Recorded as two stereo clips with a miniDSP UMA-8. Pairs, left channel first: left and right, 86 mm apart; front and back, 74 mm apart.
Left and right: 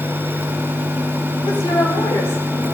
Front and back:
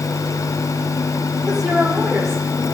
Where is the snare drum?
I don't hear a snare drum.